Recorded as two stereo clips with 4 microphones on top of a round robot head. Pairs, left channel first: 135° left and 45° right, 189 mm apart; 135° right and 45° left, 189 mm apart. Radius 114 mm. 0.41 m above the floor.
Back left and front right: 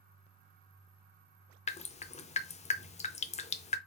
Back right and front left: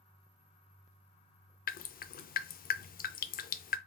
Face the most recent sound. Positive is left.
turn(degrees=-170)